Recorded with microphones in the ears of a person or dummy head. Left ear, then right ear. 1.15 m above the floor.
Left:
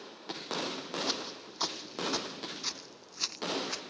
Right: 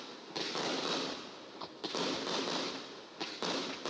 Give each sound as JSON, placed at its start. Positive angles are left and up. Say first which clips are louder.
{"t": 1.1, "sound": "footsteps", "louder": "left 8 dB", "side_deg": 60}